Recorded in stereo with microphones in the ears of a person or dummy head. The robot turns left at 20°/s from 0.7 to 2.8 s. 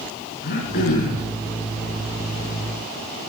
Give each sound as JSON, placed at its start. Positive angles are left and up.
{"t": 0.4, "sound": "throat clearing", "side_deg": 55, "distance_m": 5.0}